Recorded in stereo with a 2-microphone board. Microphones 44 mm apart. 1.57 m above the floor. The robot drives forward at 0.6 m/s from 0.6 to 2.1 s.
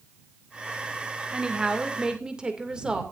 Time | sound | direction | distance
1.3 | a woman speaking | 20° right (ahead or behind) | 2 m